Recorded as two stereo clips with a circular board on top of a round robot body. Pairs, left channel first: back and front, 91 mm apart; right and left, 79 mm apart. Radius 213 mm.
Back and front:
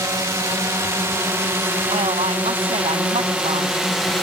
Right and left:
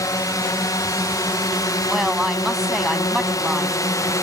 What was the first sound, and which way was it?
A drone, 55° right.